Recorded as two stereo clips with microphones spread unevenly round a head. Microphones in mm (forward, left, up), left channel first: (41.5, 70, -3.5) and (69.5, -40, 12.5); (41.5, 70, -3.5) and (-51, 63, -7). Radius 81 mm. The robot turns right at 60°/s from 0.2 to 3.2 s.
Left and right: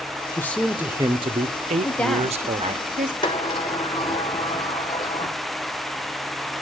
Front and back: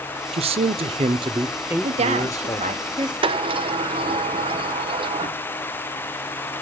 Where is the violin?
No violin in this recording.